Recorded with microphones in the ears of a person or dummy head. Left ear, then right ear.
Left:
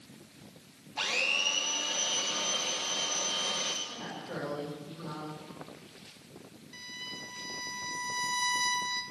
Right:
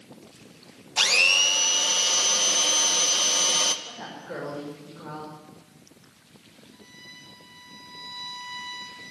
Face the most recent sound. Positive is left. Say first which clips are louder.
# left 6 dB
turn(degrees=75)  # may be behind; listen again after turning